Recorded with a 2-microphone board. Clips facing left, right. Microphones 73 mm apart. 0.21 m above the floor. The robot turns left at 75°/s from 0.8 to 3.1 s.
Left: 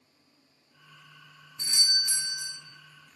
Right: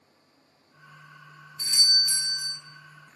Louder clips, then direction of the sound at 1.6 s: Right 2 dB; 25° left (ahead or behind).